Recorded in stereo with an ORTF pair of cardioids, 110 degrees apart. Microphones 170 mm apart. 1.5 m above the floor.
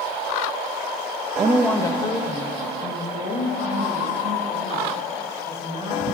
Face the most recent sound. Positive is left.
turn(degrees=50)